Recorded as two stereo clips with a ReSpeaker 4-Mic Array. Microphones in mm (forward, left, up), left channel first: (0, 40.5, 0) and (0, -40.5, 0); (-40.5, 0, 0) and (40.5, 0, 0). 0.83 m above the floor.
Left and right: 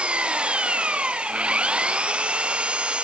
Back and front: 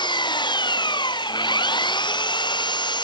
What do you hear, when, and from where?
0.0 s an engine running: 165° right